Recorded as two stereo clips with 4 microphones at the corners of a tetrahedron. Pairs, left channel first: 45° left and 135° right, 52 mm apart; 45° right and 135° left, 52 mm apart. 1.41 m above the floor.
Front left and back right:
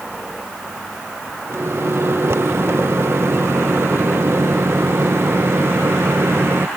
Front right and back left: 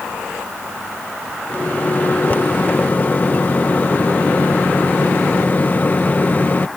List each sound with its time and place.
1.5 s a microwave: 100° right